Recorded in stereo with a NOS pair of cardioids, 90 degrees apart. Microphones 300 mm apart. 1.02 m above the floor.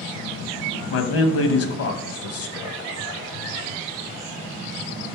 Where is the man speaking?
50° left, 0.7 m.